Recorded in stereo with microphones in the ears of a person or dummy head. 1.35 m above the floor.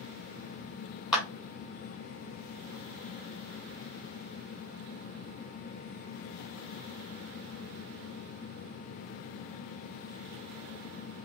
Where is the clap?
5° right (ahead or behind), 1.3 m.